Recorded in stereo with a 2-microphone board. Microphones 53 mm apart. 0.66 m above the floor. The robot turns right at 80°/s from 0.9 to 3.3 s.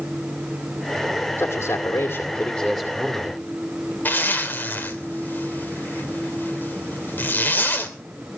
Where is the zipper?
40° left (ahead or behind), 2.5 m.